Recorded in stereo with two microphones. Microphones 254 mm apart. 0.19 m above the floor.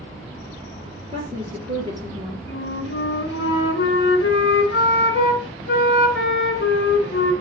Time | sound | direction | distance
1.1 | a woman speaking | 25° right (ahead or behind) | 4.5 m
2.5 | a flute | 55° left (ahead or behind) | 1.0 m